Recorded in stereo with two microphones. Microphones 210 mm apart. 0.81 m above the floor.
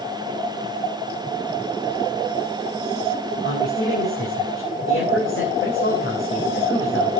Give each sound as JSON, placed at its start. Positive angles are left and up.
{"t": 3.4, "sound": "a man speaking", "side_deg": 70, "distance_m": 3.5}